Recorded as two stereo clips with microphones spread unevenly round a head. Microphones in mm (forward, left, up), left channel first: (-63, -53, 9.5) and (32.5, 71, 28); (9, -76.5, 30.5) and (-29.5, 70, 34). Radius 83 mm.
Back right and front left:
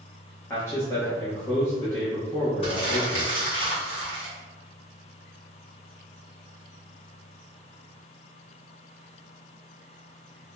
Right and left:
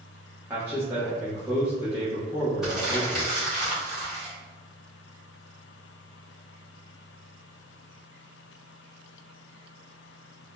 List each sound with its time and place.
0.5 s a man speaking: 175° left, 1.1 m
2.6 s crumpling: 170° right, 1.6 m